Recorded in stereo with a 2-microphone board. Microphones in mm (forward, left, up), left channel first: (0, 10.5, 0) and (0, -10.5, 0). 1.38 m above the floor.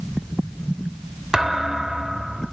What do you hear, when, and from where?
1.3 s a thud: 25° right (ahead or behind), 3 m